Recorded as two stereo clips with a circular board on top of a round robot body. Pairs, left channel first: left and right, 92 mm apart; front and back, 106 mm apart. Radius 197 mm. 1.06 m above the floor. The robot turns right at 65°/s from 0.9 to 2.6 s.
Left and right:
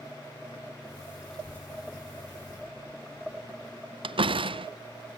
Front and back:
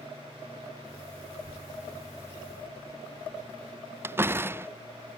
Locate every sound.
1.3 s a child speaking: 5° left; by 3.8 s 90° left
4.0 s a door slam: 110° right